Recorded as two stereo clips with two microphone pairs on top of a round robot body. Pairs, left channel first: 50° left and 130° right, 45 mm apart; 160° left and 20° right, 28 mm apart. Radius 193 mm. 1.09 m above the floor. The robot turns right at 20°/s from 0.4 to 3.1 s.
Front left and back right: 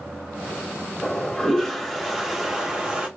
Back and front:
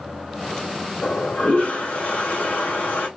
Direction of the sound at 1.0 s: 125° left.